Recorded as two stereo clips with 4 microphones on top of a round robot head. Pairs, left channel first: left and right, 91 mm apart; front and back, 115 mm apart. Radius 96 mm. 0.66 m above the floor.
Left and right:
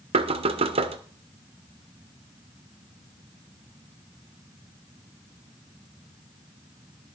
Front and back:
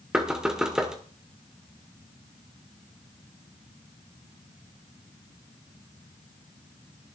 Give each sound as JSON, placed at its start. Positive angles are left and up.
{"t": 0.1, "sound": "knocking", "azimuth_deg": -95, "distance_m": 1.3}